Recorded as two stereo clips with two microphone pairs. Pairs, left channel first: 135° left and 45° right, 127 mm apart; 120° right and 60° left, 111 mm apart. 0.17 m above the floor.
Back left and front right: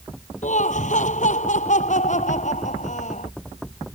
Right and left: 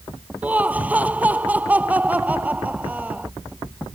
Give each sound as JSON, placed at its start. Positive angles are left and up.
{"t": 0.4, "sound": "laughter", "azimuth_deg": 135}